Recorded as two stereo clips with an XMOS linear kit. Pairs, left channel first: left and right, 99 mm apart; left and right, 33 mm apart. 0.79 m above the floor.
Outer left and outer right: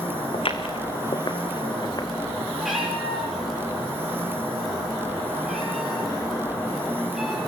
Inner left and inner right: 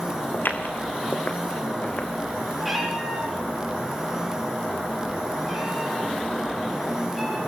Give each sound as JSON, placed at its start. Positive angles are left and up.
{"t": 0.3, "sound": "footsteps", "side_deg": 65, "distance_m": 2.5}
{"t": 2.6, "sound": "a cat meowing", "side_deg": -5, "distance_m": 6.0}